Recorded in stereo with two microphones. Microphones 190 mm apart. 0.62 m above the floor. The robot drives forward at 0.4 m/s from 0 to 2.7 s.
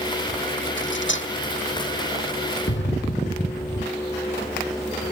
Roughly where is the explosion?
Left.